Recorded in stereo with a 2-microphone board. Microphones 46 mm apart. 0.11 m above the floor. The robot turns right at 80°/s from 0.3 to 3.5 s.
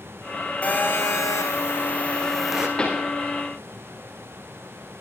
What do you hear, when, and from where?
0.6 s a phone buzzing: 35° left, 5 m; by 2.7 s 160° right, 5 m
2.8 s a pop: 20° left (ahead or behind), 6.5 m; by 3.1 s 5° right (ahead or behind), 6.5 m